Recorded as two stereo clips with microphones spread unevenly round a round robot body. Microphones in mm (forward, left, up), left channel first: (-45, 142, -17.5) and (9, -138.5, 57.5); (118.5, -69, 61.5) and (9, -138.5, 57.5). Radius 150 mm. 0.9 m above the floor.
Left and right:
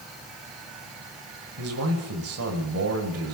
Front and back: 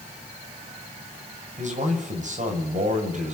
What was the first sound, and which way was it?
A man speaking, 125° right.